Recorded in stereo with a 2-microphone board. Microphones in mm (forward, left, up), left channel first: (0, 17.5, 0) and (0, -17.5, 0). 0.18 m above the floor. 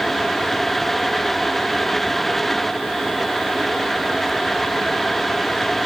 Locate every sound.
Only background noise.